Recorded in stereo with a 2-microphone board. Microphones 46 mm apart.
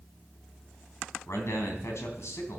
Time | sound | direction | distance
1.3 | a man speaking | 80° left | 3 m